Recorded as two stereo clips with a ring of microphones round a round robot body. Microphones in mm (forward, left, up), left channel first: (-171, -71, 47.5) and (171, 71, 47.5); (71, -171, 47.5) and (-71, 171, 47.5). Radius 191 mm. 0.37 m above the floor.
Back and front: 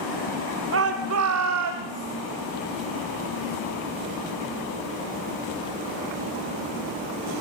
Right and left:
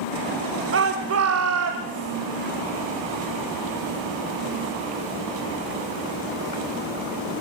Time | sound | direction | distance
0.7 | a shout | 65° left | 1.3 m